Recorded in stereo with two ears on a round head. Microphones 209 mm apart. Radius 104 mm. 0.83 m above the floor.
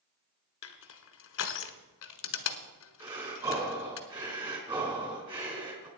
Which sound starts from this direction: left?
Crushing, at 0.6 s.